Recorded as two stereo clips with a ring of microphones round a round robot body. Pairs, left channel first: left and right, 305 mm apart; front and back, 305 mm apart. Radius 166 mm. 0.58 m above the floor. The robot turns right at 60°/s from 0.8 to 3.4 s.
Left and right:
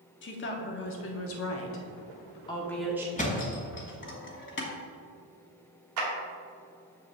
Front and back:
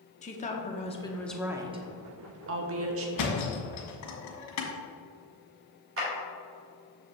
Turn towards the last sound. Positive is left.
turn(degrees=-130)